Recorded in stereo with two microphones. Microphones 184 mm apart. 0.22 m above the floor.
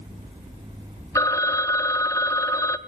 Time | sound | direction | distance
1.1 | a phone ringing | 15° left (ahead or behind) | 0.8 m